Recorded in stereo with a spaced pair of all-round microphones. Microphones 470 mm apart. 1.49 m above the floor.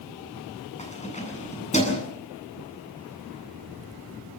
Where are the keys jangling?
15° left (ahead or behind), 8.5 m.